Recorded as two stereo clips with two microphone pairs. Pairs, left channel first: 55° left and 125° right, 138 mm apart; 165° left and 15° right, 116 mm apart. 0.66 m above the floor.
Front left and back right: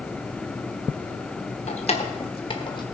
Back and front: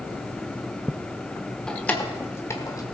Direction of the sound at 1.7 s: 80° left.